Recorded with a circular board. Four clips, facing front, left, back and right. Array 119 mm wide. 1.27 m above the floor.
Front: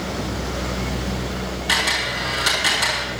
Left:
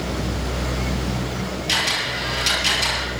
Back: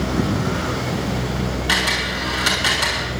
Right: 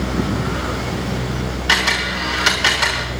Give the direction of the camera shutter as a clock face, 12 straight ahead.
3 o'clock.